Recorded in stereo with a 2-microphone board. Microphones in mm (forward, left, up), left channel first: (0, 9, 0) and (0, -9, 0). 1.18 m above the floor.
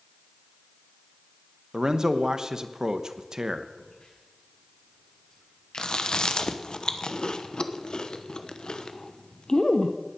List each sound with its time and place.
1.7 s a man speaking: 35° right (ahead or behind), 1.0 m
3.8 s a crack: 65° left (ahead or behind), 7 m
5.8 s chewing: 50° left (ahead or behind), 0.9 m